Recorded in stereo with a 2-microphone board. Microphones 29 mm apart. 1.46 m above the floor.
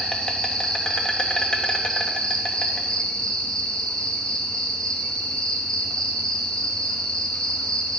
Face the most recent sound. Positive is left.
turn(degrees=25)  # may be behind; listen again after turning